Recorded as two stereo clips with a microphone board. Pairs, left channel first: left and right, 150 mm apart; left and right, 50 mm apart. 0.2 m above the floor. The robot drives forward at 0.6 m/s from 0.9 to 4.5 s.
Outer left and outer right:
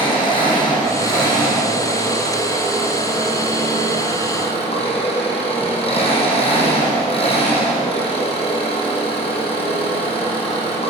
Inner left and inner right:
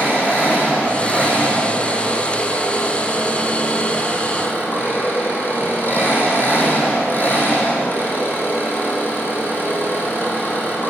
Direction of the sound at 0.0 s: 30° left (ahead or behind).